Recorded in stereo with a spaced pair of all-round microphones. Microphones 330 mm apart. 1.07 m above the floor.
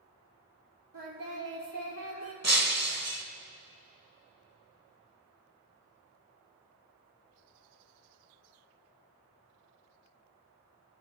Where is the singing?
75° right (ahead or behind), 2.5 m.